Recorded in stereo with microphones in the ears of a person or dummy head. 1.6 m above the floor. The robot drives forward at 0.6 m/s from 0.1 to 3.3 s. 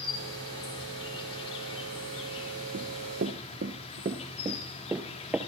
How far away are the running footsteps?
About 1.9 m.